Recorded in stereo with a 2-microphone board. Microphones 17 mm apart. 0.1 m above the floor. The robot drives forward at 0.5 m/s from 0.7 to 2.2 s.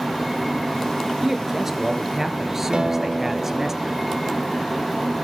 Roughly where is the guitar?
Right.